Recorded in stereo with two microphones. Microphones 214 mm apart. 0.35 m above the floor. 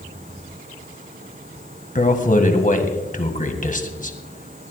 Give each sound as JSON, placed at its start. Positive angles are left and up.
{"t": 1.9, "sound": "a man speaking", "side_deg": 40, "distance_m": 1.7}